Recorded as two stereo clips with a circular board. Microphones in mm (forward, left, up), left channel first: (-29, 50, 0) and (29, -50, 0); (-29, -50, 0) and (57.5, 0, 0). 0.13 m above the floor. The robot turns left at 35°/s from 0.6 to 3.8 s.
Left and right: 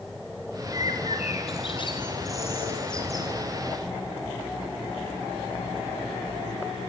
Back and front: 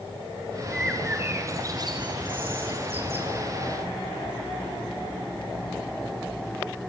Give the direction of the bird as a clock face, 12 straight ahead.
8 o'clock.